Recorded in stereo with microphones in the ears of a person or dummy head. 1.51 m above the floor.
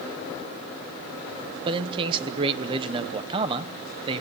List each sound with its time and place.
1.6 s a man speaking: 30° right (ahead or behind), 1.0 m